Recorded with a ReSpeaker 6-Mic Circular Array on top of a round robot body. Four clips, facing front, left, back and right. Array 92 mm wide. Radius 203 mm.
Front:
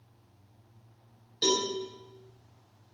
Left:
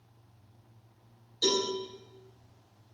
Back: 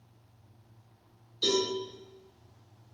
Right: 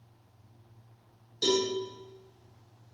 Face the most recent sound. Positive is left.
turn(degrees=-15)